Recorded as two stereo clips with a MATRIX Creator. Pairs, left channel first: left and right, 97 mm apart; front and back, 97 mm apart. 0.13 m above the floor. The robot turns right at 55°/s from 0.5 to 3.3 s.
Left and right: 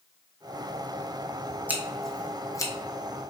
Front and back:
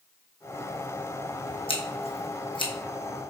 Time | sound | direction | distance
1.7 | scissors | 15° right | 0.9 m